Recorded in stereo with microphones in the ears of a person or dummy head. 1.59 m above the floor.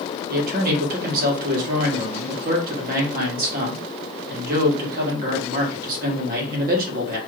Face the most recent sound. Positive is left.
turn(degrees=-55)  # may be behind; listen again after turning